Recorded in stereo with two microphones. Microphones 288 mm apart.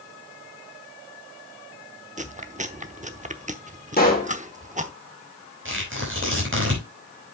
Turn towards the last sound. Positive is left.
turn(degrees=-45)  # may be behind; listen again after turning